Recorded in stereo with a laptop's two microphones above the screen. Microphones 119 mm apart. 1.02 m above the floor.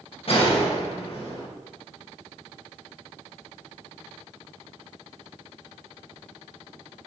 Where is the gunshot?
50° left (ahead or behind), 1.4 m.